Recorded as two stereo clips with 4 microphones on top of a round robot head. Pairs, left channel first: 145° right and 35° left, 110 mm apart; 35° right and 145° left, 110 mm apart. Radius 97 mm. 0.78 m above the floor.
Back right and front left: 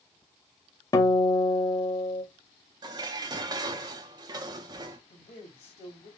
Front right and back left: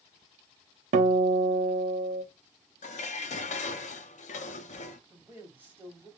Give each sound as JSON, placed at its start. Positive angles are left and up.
{"t": 0.9, "sound": "a guitar", "azimuth_deg": 155, "distance_m": 0.7}
{"t": 2.8, "sound": "dishes clattering", "azimuth_deg": -20, "distance_m": 0.6}
{"t": 5.1, "sound": "a man speaking", "azimuth_deg": -140, "distance_m": 1.9}